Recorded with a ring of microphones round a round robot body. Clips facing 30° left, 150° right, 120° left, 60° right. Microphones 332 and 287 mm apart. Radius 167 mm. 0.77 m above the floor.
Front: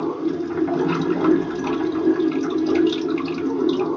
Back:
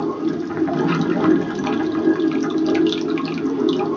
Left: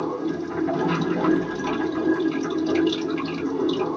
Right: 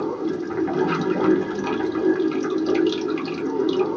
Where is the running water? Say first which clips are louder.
Back 1 dB, right 1 dB; 120° right, 0.8 m.